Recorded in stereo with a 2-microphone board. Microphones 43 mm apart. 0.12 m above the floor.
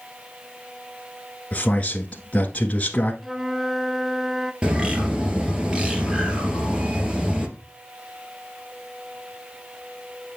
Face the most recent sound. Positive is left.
turn(degrees=-25)  # may be behind; listen again after turning